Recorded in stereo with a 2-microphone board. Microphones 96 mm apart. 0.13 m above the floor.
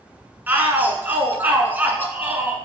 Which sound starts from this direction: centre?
A shout, at 0.5 s.